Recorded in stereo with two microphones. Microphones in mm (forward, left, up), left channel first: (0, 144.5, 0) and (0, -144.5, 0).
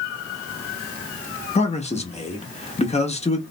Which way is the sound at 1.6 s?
25° left (ahead or behind).